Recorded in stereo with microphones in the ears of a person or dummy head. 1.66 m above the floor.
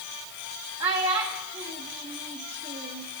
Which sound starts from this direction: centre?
A child speaking, at 0.8 s.